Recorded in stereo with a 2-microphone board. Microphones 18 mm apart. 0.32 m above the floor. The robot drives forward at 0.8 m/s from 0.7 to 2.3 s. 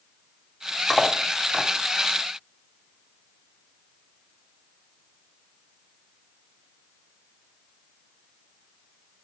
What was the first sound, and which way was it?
Cutlery clinking, 5° right (ahead or behind).